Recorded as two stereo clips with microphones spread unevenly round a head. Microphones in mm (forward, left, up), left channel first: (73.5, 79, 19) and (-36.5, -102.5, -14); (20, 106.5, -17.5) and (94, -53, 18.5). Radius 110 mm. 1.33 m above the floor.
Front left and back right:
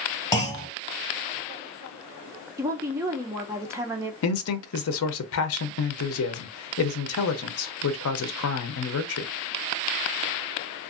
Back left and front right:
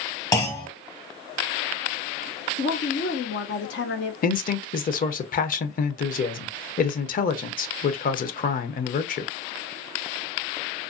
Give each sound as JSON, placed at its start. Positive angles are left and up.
{"t": 0.3, "sound": "a clunk", "azimuth_deg": 45, "distance_m": 1.2}
{"t": 2.6, "sound": "a woman speaking", "azimuth_deg": 155, "distance_m": 0.5}
{"t": 4.2, "sound": "a man speaking", "azimuth_deg": 70, "distance_m": 0.6}